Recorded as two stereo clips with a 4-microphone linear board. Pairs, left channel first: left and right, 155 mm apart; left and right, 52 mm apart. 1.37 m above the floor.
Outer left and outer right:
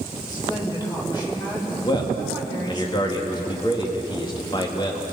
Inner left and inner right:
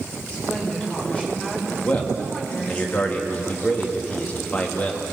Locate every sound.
0.3 s a woman speaking: 25° left (ahead or behind), 6 m
1.8 s a man speaking: 30° left (ahead or behind), 2.5 m